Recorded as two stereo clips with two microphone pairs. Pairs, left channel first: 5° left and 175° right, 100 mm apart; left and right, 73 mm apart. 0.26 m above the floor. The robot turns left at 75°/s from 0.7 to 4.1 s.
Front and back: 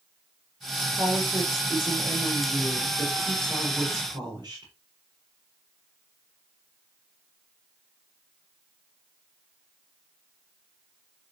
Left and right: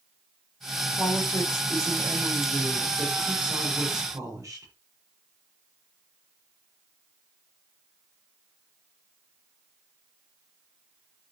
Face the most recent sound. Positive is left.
turn(degrees=-130)